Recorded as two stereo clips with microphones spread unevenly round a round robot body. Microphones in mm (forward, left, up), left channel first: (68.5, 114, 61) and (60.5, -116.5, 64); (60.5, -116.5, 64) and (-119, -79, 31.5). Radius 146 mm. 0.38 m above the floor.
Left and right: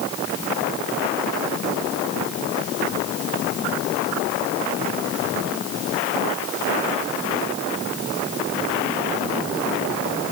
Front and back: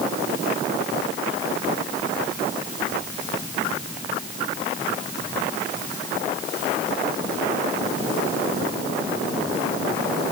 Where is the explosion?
I don't hear an explosion.